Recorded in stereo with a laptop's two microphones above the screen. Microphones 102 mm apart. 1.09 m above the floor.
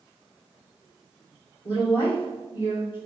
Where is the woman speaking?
50° left (ahead or behind), 3 m.